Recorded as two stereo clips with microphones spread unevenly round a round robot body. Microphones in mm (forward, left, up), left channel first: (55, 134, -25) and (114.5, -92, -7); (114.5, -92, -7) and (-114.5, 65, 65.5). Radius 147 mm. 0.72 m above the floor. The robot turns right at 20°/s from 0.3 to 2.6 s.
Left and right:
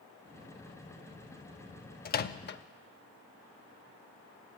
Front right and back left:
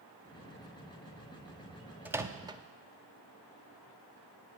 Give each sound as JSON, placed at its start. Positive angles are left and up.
{"t": 2.0, "sound": "a microwave", "azimuth_deg": 55, "distance_m": 0.6}